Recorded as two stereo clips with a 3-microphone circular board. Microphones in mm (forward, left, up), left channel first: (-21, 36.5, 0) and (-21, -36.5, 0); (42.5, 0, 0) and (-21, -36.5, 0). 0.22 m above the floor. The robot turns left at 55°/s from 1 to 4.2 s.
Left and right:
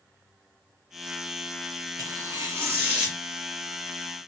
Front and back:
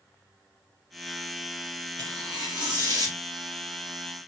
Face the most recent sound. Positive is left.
turn(degrees=130)